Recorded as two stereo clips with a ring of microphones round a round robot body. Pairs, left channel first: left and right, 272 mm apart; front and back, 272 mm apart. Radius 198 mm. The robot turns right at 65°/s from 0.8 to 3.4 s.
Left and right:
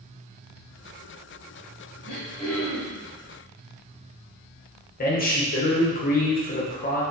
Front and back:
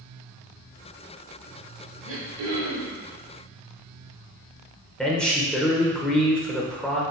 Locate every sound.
2.0 s throat clearing: 140° left, 1.0 m; by 3.0 s 155° right, 1.0 m
5.0 s a man speaking: 85° left, 0.9 m